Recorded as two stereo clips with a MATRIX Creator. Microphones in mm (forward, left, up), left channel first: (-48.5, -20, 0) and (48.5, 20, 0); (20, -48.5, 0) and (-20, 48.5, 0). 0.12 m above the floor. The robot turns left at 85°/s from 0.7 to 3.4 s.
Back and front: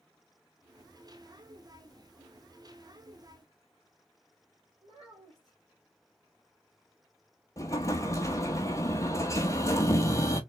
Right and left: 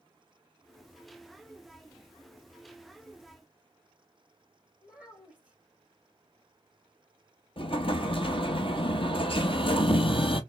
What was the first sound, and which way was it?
A child speaking, 30° left.